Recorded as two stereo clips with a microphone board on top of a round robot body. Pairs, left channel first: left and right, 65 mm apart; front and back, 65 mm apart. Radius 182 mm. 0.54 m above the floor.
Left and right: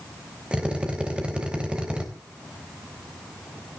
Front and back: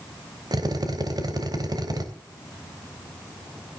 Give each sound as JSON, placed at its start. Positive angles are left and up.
{"t": 0.5, "sound": "a drill", "azimuth_deg": -165, "distance_m": 3.5}